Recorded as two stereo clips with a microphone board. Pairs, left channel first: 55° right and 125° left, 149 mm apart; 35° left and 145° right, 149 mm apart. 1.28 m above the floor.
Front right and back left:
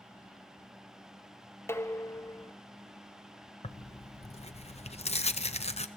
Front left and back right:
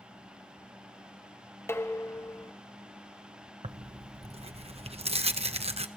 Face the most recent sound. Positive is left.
turn(degrees=-100)